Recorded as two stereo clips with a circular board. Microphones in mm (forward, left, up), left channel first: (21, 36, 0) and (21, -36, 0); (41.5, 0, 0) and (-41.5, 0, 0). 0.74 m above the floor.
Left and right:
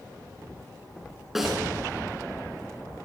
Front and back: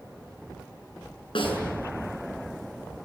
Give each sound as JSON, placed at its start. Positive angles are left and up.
{"t": 1.4, "sound": "a snare drum", "azimuth_deg": -5, "distance_m": 6.0}